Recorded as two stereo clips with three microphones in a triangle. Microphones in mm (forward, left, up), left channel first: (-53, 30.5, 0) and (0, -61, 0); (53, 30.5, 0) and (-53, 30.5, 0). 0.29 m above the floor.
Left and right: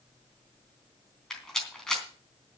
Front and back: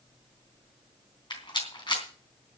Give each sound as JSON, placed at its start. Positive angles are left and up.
{"t": 1.3, "sound": "a rattle", "azimuth_deg": 35, "distance_m": 3.5}